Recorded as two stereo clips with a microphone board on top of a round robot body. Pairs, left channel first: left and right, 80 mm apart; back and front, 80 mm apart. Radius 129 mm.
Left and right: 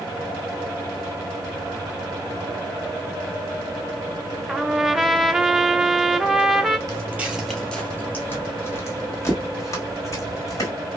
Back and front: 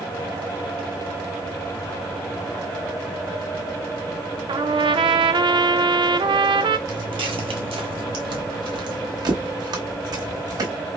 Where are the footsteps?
45° right, 0.5 m; by 10.7 s 40° left, 2 m.